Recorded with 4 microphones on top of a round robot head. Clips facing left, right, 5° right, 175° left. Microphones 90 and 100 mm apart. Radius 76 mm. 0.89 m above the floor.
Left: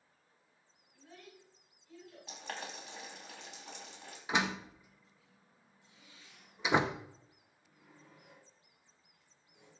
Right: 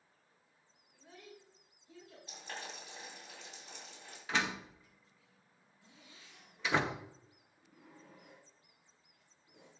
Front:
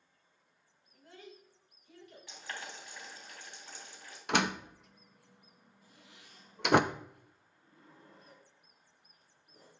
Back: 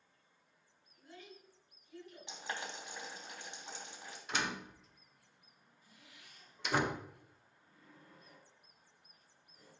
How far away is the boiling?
About 3.5 m.